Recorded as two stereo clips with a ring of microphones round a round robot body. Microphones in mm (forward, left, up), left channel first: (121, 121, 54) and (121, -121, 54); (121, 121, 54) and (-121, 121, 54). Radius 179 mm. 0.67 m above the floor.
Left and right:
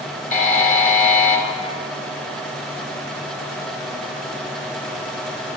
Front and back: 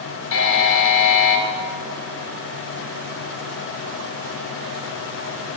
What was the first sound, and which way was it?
A buzzer, 35° left.